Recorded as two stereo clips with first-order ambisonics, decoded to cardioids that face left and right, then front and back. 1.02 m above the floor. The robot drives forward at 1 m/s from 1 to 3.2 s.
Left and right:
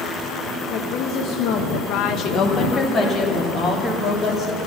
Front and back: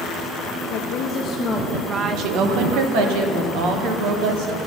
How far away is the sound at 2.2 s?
About 1.0 m.